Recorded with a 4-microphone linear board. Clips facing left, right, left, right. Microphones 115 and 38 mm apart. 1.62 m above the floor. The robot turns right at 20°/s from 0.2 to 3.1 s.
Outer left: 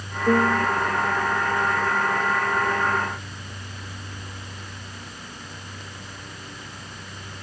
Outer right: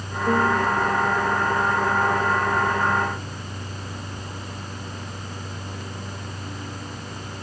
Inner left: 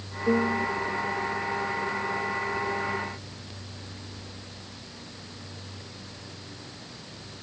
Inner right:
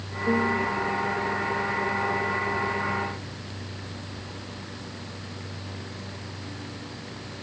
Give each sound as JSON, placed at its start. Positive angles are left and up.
{"t": 0.3, "sound": "a piano", "side_deg": 15}